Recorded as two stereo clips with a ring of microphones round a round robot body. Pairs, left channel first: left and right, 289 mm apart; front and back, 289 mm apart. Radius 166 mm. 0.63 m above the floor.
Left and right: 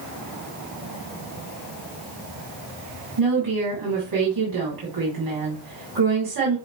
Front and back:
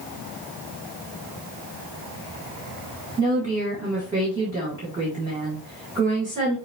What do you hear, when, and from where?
3.2 s a woman speaking: 105° right, 3 m